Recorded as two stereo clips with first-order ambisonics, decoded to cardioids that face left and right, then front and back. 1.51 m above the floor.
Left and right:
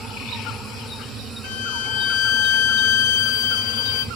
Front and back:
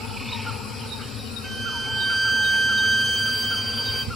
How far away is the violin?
About 0.9 m.